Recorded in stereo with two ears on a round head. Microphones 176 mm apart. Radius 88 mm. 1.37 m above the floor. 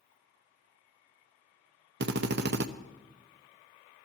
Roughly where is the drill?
Right.